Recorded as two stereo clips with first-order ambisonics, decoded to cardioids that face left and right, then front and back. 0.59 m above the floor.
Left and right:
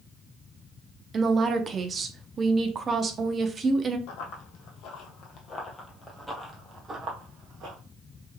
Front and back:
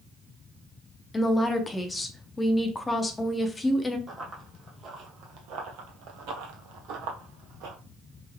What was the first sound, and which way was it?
A woman speaking, 60° right.